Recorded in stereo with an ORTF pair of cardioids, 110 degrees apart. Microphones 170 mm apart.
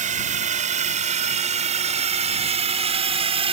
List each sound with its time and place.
0.0 s a drone: 50° right; by 3.5 s 35° right